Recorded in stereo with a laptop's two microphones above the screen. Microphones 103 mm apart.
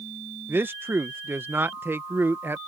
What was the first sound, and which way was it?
A man speaking, 20° right (ahead or behind).